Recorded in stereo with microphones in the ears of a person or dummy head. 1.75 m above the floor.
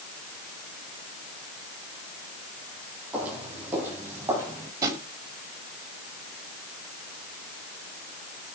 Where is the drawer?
25° right (ahead or behind), 3.5 m.